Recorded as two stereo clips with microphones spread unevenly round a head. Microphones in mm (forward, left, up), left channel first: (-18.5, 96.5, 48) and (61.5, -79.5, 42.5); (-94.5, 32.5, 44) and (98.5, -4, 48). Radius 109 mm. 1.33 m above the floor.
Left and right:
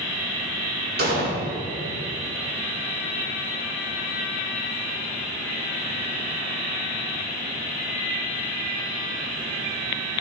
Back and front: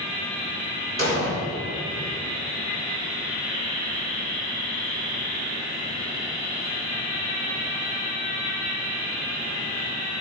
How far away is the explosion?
About 2.5 m.